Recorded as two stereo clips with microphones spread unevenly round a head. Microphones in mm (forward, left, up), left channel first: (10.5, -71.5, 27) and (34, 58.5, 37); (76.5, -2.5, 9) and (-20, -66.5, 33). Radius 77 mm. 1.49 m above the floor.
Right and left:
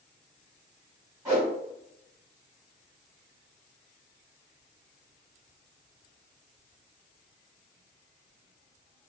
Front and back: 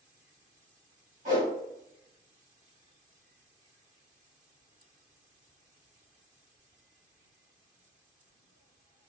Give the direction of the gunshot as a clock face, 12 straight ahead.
I don't hear a gunshot.